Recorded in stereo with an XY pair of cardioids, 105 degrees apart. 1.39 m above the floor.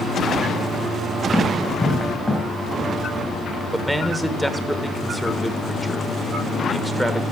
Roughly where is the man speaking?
Ahead.